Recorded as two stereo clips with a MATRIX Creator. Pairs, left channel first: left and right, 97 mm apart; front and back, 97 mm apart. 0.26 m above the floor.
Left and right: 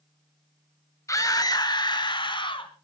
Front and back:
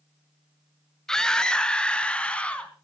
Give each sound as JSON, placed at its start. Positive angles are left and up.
{"t": 1.1, "sound": "a scream", "azimuth_deg": 80, "distance_m": 1.1}